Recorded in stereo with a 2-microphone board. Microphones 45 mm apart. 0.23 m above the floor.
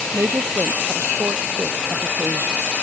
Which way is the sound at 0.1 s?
75° right (ahead or behind).